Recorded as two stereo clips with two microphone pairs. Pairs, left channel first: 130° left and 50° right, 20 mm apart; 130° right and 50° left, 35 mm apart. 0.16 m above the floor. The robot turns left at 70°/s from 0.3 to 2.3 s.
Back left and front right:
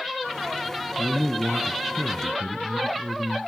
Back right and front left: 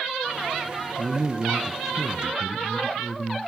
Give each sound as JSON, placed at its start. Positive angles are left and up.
{"t": 1.0, "sound": "a man speaking", "azimuth_deg": 20, "distance_m": 1.4}